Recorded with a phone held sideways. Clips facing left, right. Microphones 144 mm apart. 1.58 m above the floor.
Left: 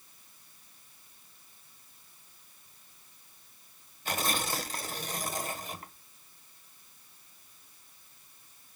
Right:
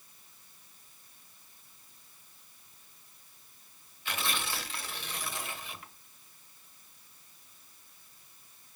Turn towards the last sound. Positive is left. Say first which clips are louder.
# left 4 dB
turn(degrees=40)  # may be behind; listen again after turning